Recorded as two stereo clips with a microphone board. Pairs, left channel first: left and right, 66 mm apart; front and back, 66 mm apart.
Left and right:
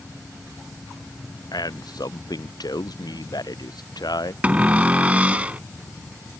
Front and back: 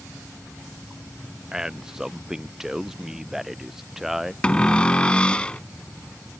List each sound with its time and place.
1.5 s a man speaking: 100° left; by 4.3 s 95° left
4.4 s a cupboard door: 55° right